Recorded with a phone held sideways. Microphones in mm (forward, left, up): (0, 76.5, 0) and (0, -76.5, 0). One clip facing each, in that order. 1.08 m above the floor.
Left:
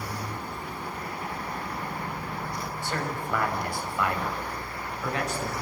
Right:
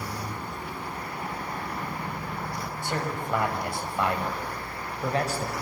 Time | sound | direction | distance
2.8 | a man speaking | 15° right (ahead or behind) | 6 m